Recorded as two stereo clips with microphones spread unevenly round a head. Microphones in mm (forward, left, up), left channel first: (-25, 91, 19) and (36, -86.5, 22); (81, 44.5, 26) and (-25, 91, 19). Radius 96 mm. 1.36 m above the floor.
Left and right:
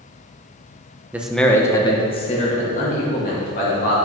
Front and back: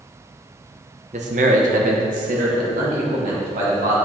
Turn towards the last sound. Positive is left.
turn(degrees=155)